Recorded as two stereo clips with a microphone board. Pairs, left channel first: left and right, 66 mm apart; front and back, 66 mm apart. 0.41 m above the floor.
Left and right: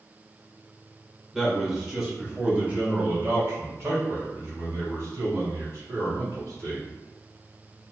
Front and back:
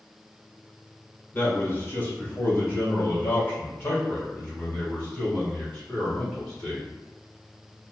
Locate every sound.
1.3 s a man speaking: straight ahead, 1.6 m; by 6.9 s 70° right, 3.5 m